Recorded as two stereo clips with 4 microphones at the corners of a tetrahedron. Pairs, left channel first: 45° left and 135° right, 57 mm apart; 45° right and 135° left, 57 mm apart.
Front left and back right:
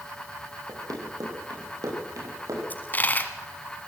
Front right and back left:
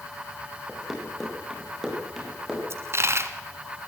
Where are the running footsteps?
135° right, 6 m; by 2.6 s 140° right, 8 m.